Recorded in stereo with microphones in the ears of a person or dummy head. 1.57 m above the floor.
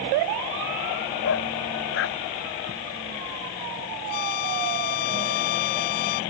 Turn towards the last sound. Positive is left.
turn(degrees=55)  # may be behind; listen again after turning